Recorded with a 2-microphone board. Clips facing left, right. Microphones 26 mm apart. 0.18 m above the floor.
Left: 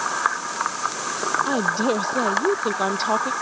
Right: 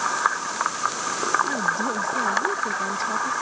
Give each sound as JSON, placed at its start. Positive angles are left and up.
{"t": 1.4, "sound": "a woman speaking", "side_deg": 55}